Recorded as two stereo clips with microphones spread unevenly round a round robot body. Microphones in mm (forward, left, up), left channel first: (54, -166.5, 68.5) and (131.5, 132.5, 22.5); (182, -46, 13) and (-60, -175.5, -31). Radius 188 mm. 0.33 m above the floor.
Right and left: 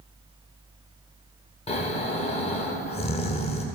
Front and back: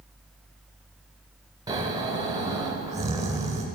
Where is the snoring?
165° right, 1.1 m.